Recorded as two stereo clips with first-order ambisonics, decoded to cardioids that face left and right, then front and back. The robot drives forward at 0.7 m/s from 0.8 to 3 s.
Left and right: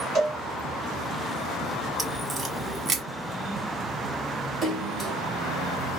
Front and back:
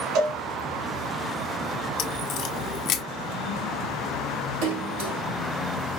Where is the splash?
Straight behind, 4.5 m.